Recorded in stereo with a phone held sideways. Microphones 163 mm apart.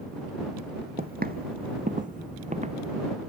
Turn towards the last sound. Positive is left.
turn(degrees=-40)  # may be behind; listen again after turning